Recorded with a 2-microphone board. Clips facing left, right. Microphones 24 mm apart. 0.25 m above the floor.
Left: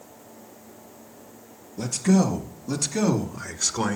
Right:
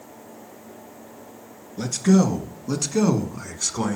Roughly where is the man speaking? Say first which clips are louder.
Right 3 dB; right.